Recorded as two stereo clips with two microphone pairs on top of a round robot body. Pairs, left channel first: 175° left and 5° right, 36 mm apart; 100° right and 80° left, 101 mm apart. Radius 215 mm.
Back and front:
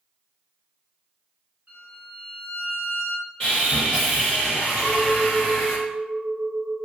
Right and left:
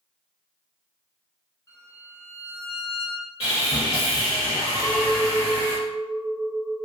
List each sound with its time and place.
1.7 s a violin: 40° right, 1.8 m
3.4 s sawing: 110° right, 0.6 m
4.8 s a clink: 35° right, 1.0 m